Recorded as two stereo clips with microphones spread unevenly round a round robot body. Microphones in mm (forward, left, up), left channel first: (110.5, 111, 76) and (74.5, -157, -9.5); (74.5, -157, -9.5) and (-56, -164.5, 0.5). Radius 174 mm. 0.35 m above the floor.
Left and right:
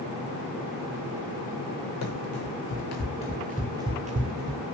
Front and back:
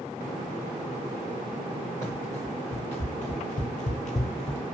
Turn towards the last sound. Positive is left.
turn(degrees=-40)